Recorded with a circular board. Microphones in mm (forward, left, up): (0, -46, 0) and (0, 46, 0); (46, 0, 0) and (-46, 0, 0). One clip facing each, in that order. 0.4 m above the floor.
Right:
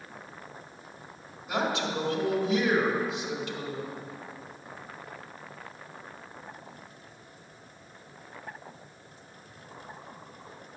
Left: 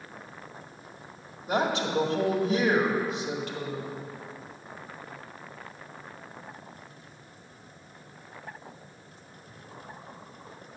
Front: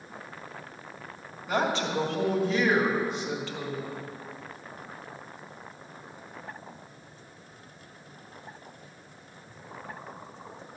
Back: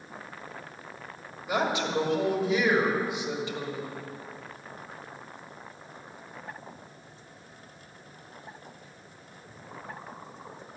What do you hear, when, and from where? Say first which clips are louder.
1.5 s a woman speaking: left 3 dB, even; 105° left, 1.9 m